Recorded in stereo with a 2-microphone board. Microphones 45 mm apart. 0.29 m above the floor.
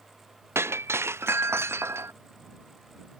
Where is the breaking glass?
80° right.